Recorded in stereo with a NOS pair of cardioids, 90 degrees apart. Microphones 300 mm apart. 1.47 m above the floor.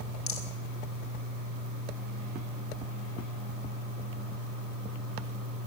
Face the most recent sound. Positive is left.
turn(degrees=65)